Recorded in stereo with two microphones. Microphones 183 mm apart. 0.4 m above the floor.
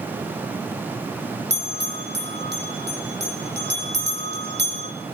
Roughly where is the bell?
Right.